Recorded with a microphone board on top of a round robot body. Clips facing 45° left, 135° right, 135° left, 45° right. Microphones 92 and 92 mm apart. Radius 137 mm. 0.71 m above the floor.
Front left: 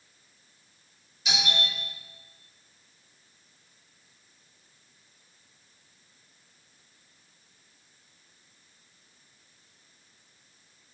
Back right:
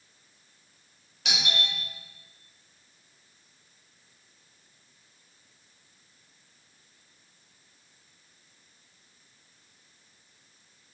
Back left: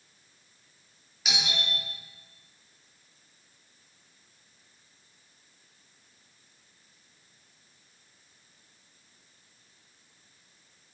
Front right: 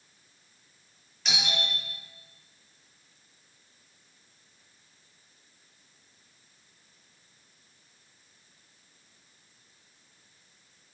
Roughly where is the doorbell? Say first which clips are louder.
Front left 1 dB, front right 1 dB; behind right.